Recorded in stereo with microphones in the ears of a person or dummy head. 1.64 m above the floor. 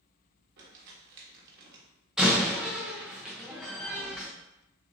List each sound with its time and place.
0.6 s crumpling: 55° right (ahead or behind), 1.2 m
2.2 s a door slam: centre (ahead or behind), 0.8 m